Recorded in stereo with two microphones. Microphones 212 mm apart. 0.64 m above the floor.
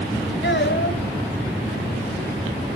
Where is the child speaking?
60° left (ahead or behind), 2.5 m.